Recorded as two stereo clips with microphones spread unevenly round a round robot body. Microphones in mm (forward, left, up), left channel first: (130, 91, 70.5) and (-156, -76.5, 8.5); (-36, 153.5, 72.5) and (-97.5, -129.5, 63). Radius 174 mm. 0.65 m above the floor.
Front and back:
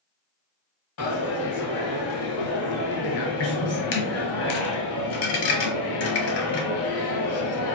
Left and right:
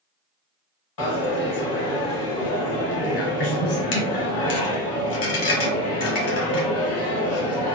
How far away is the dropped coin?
About 1.1 m.